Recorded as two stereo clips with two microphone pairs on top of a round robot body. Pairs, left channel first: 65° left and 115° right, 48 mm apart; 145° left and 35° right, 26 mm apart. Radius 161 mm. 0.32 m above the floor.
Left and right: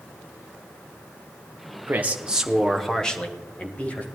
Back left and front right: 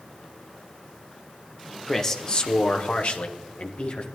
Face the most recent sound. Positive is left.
turn(degrees=120)